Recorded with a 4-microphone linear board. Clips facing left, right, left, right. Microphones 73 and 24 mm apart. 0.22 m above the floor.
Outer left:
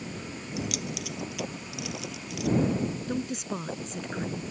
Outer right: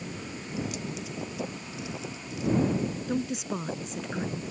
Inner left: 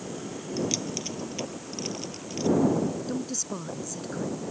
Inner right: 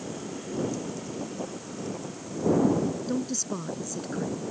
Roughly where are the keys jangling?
Left.